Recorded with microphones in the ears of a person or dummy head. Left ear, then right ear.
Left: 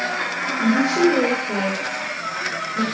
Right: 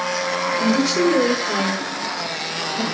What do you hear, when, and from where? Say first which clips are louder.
0.6 s a woman speaking: left 3 dB; 30° right (ahead or behind), 5 m; by 2.9 s 5° left (ahead or behind), 5 m